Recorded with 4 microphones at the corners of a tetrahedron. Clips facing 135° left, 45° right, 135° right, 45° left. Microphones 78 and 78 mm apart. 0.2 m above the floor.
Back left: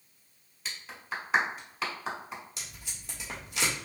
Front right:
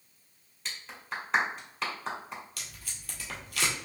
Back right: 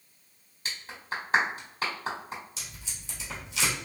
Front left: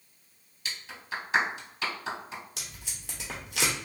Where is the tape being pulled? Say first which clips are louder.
Even, even; 70° left, 1.3 m.